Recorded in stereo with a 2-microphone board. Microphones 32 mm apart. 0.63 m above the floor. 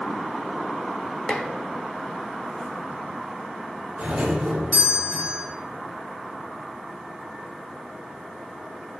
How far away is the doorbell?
About 3 m.